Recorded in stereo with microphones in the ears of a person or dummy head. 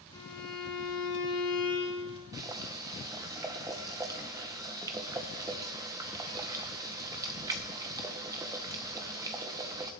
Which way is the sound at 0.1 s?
25° left (ahead or behind).